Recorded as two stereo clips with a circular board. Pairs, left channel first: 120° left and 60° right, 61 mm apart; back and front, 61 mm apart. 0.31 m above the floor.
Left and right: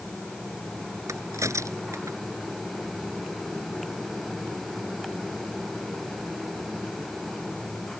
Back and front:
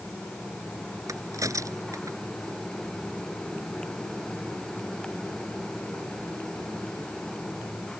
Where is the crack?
25° right.